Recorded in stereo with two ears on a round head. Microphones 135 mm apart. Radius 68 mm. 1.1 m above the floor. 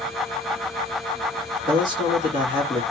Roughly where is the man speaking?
Right.